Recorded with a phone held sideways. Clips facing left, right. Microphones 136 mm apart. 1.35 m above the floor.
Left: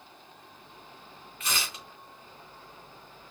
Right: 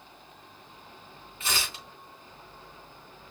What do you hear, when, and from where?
1.4 s tearing paper: 25° right (ahead or behind), 3.5 m